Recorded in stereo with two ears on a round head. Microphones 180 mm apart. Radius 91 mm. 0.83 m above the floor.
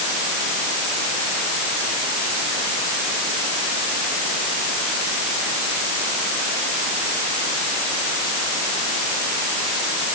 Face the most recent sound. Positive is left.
No sound to turn to.